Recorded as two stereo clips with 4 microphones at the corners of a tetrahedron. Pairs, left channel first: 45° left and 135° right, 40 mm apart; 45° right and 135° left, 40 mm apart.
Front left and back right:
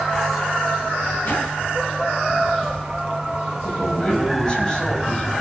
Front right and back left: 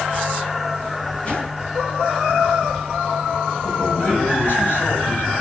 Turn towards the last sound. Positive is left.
turn(degrees=-25)